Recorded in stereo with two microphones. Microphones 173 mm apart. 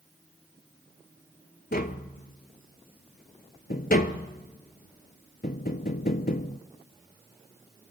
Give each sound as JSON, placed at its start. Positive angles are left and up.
{"t": 1.7, "sound": "tapping", "side_deg": 60, "distance_m": 0.6}